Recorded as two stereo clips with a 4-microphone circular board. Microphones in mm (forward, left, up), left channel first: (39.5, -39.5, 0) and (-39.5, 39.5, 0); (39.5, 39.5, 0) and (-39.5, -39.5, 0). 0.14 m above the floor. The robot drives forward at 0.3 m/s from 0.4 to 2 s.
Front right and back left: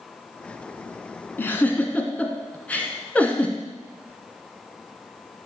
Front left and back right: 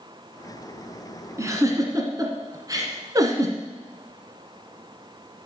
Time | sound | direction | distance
1.4 | a giggle | 100° right | 1.5 m